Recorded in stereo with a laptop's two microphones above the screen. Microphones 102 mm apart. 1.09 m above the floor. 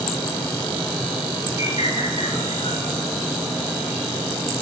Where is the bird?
75° left (ahead or behind), 3.5 m.